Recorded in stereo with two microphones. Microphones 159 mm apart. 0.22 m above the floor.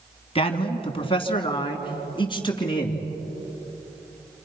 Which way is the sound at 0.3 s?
40° left (ahead or behind).